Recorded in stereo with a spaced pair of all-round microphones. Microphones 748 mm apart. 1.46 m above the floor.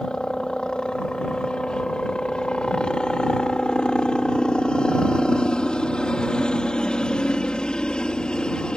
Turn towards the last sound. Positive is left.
turn(degrees=0)  # may be behind; listen again after turning